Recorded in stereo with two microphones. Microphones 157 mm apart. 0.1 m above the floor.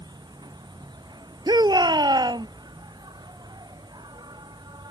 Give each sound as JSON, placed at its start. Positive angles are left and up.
{"t": 0.0, "sound": "an insect", "side_deg": -25}
{"t": 1.5, "sound": "a shout", "side_deg": -30}